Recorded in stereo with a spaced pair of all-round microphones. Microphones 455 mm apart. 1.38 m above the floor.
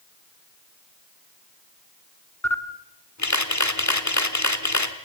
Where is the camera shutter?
40° left (ahead or behind), 1.3 m.